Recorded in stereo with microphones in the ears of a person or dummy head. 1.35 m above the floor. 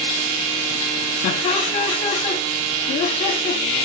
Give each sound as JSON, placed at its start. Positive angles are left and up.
{"t": 1.2, "sound": "laughter", "side_deg": 30, "distance_m": 0.7}